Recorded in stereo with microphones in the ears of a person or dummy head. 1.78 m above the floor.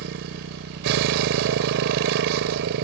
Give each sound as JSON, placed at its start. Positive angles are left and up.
{"t": 0.0, "sound": "a motorcycle", "side_deg": -60}